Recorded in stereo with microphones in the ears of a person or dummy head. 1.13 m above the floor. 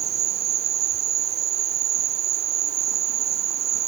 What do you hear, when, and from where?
0.0 s an insect: 30° right (ahead or behind)